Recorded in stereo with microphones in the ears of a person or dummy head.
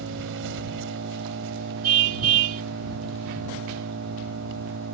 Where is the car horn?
60° right (ahead or behind).